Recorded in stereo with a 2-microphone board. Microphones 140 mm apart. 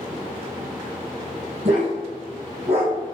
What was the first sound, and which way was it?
A dog barking, 50° right (ahead or behind).